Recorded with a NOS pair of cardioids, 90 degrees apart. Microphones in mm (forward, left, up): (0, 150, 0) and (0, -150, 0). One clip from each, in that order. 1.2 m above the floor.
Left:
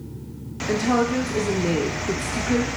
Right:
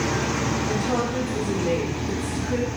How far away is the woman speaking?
About 0.5 m.